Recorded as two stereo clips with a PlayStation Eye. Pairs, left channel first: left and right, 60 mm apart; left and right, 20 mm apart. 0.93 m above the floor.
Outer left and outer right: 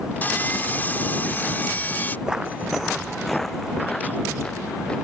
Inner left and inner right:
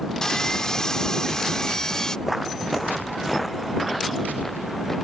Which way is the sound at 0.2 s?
30° left (ahead or behind).